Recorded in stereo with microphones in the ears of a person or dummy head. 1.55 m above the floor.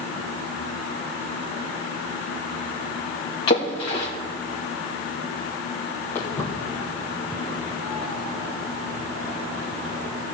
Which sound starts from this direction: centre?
Footsteps, at 6.2 s.